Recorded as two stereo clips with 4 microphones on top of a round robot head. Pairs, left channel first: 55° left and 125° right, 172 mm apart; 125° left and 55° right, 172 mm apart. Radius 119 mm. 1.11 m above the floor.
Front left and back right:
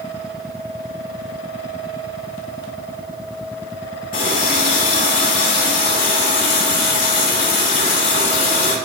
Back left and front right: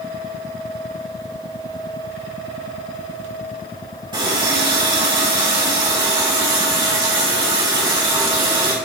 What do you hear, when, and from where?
4.1 s a running tap: 10° left, 2.5 m